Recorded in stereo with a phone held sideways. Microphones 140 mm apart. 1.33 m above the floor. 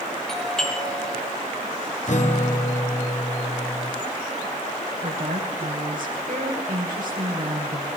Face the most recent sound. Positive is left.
turn(degrees=-70)  # may be behind; listen again after turning